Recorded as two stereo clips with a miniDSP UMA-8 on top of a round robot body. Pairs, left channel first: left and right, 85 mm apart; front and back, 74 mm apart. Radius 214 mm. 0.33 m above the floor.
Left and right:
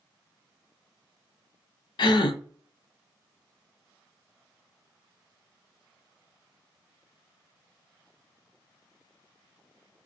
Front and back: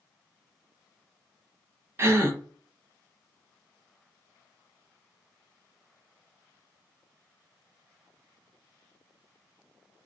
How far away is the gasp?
About 0.5 m.